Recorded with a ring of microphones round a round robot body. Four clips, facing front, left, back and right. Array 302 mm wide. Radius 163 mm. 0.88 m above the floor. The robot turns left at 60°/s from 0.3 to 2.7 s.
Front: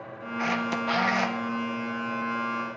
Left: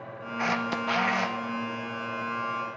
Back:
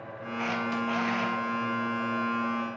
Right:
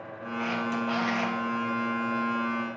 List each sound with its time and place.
0.4 s a camera shutter: 70° left, 0.5 m; by 1.4 s 10° left, 0.5 m